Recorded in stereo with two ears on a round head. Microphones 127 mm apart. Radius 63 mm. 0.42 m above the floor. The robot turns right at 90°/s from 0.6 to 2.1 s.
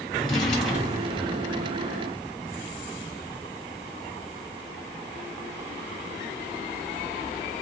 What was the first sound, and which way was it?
A drawer, 175° left.